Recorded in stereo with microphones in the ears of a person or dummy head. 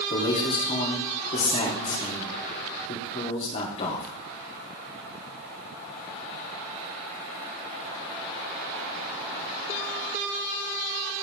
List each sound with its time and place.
0.1 s a man speaking: 40° left (ahead or behind), 3.5 m